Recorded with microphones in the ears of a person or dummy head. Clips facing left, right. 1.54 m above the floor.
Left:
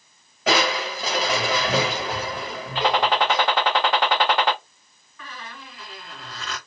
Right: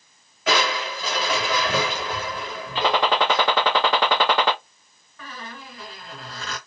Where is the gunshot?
65° right (ahead or behind), 0.6 m.